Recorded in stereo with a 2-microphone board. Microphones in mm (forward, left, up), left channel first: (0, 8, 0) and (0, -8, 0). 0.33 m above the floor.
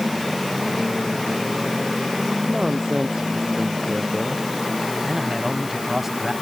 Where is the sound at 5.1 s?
20° right (ahead or behind).